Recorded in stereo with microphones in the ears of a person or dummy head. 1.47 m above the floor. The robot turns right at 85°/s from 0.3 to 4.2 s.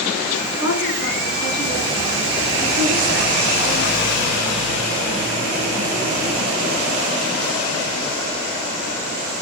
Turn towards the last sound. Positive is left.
turn(degrees=10)